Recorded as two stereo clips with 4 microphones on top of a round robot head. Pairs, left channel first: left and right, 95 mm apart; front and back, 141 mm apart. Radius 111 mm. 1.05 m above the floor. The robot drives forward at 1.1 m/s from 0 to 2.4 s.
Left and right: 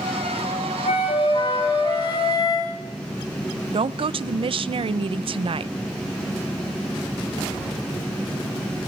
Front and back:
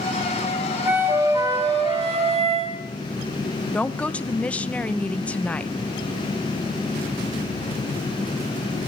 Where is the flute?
100° left, 2 m; by 2.8 s 135° left, 3 m.